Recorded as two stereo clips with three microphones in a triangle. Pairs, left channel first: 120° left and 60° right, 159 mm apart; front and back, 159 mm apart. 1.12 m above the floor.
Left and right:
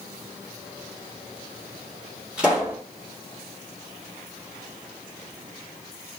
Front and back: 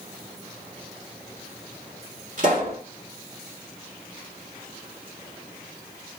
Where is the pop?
145° right, 1.2 m.